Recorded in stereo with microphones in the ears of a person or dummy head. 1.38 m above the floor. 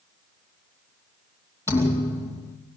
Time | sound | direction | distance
1.7 | a thud | 15° left (ahead or behind) | 2.5 m